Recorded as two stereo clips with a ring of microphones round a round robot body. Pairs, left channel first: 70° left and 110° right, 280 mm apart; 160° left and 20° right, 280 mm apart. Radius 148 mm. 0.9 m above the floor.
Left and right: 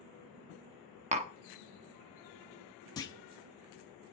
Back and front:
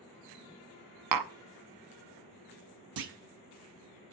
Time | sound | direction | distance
1.1 | tapping | 45° right | 0.7 m
3.0 | a clunk | 10° right | 0.8 m